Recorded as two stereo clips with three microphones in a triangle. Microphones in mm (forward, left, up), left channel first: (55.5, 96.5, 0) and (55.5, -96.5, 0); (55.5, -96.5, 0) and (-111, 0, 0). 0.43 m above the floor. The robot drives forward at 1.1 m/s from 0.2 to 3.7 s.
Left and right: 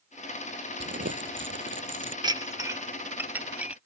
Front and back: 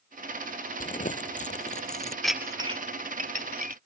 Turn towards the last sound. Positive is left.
turn(degrees=-170)